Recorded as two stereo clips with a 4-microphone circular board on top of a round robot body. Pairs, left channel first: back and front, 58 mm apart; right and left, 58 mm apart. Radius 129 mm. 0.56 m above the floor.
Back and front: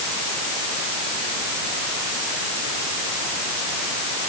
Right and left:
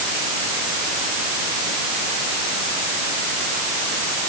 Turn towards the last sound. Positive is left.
No sound to turn to.